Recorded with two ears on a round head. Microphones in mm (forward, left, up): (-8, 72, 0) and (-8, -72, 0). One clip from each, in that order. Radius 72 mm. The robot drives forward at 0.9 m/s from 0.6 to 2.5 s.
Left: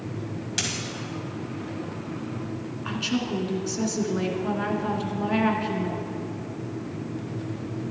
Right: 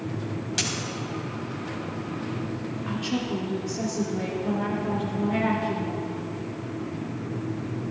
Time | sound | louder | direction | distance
0.6 | a dropped coin | even | centre (ahead or behind) | 1.6 m
2.9 | a woman speaking | left 2 dB | 45° left (ahead or behind) | 1.9 m